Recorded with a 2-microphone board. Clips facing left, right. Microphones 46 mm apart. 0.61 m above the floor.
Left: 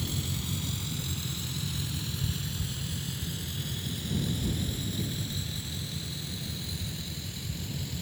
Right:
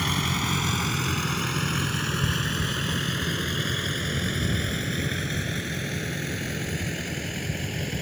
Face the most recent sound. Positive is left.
turn(degrees=-65)  # may be behind; listen again after turning